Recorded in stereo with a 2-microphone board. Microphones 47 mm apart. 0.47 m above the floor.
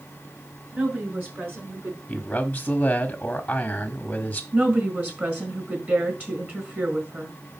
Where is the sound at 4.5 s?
40° right (ahead or behind), 4.5 m.